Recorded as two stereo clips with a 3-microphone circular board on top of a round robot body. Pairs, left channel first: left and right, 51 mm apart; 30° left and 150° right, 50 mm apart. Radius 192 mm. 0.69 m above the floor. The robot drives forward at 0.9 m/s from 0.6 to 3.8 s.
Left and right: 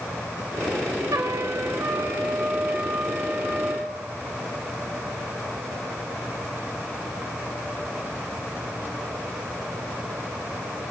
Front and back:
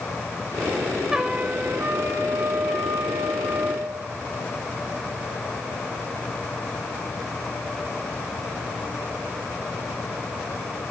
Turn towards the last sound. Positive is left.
turn(degrees=-155)